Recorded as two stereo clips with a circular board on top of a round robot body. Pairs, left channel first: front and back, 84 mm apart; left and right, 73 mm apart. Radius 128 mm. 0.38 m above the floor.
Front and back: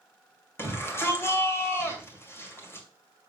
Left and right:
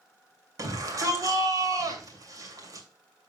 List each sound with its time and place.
0.6 s a shout: 60° right, 2.5 m